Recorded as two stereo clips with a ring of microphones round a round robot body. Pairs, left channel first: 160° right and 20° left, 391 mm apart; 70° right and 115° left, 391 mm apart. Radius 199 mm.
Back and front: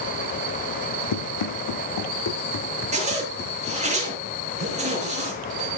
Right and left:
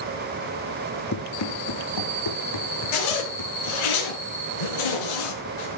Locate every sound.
1.1 s running footsteps: 125° right, 2.5 m; by 3.8 s 85° right, 3 m
2.9 s a zipper: 50° right, 4 m